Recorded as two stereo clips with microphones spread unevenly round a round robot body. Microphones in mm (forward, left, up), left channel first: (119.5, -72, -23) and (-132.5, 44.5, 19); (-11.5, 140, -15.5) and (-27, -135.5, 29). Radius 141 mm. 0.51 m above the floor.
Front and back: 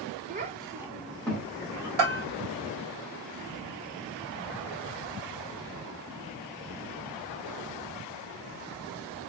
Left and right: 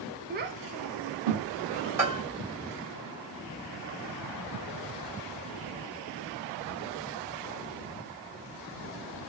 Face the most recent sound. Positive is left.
turn(degrees=180)